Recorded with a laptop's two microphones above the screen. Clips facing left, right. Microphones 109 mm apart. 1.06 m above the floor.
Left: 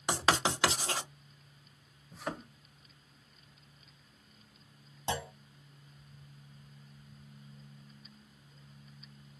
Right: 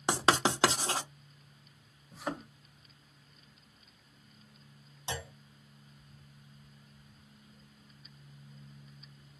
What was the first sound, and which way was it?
Writing, 30° right (ahead or behind).